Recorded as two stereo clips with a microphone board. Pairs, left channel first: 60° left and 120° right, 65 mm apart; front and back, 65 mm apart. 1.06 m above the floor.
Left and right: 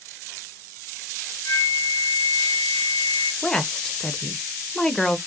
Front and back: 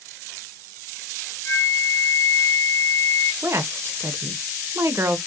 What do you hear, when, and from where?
1.4 s a flute: 40° left, 1.3 m
3.4 s a woman speaking: 140° left, 0.5 m